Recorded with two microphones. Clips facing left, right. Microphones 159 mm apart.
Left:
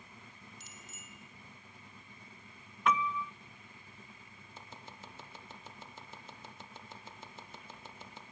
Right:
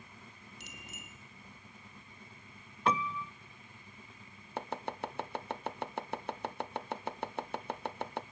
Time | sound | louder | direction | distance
0.6 | a bicycle bell | right 4 dB | 70° right (ahead or behind) | 3 m
2.9 | a piano | left 1 dB | 35° right (ahead or behind) | 0.5 m
4.6 | chopping | right 14 dB | 70° right (ahead or behind) | 0.8 m